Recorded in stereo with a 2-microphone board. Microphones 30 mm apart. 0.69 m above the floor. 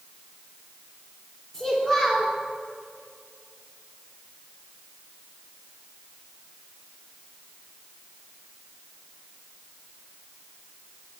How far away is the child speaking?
About 1.4 m.